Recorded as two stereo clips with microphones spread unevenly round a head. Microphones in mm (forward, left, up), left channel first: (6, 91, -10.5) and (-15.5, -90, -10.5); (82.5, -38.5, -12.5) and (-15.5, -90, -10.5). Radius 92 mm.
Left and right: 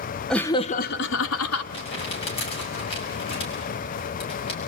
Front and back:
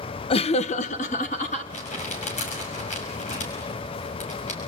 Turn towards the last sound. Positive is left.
turn(degrees=20)